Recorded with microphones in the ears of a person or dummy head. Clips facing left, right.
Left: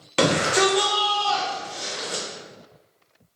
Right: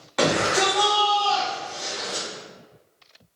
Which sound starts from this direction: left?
A shout, at 0.2 s.